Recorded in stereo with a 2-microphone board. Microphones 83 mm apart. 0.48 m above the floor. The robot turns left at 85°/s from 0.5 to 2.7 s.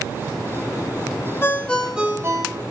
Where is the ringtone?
35° left, 1.6 m; by 2.6 s 65° right, 1.6 m.